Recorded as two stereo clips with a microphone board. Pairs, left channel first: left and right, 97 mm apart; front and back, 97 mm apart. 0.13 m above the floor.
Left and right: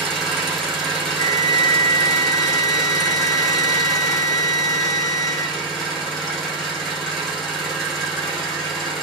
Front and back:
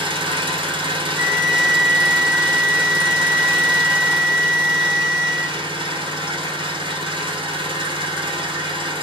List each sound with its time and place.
0.0 s an engine running: straight behind, 1.3 m
1.1 s a flute: 45° left, 0.9 m